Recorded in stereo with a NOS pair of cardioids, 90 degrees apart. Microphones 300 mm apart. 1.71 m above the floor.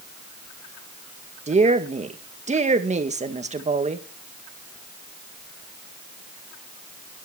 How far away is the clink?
I don't hear a clink.